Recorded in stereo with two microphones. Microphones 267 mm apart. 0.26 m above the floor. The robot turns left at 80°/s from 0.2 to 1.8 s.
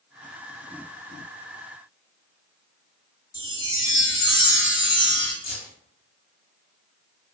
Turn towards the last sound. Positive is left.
turn(degrees=30)  # may be behind; listen again after turning